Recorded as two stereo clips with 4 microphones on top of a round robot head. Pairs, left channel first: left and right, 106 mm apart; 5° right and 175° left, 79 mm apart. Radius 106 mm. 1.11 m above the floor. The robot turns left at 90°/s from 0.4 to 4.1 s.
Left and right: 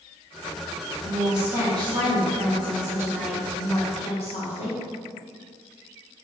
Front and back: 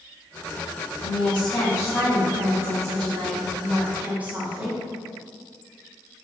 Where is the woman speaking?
25° left, 1.2 m; by 4.8 s 105° left, 1.2 m.